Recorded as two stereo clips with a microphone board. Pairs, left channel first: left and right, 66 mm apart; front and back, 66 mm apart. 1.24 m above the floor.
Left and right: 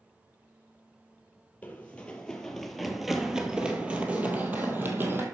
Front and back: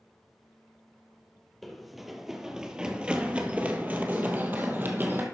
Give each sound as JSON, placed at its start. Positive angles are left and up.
{"t": 1.6, "sound": "running footsteps", "azimuth_deg": 85, "distance_m": 1.3}